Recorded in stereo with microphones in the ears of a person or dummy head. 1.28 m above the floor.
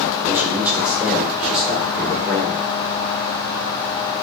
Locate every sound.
0.3 s a man speaking: 10° right (ahead or behind), 5 m; by 2.7 s 25° left (ahead or behind), 4 m